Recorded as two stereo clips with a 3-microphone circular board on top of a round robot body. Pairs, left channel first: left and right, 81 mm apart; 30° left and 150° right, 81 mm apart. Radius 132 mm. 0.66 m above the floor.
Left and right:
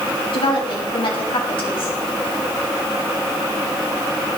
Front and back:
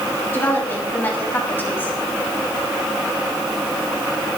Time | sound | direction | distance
0.3 | a woman speaking | 95° left | 5.5 m